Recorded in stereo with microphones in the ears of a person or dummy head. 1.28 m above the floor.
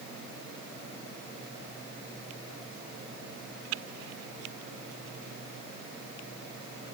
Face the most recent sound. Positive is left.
No sound to turn to.